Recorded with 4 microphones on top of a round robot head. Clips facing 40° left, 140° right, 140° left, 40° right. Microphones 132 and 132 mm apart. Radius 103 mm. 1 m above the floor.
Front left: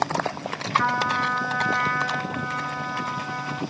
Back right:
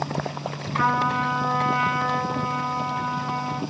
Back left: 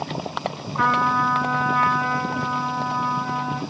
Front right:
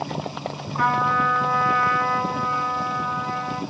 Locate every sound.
0.8 s a trumpet: 120° right, 1.3 m